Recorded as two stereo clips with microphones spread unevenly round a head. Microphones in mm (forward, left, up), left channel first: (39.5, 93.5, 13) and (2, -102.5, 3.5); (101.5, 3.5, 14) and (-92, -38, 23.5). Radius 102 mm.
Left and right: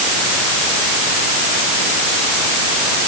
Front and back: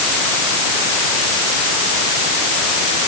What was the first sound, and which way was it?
Only background noise.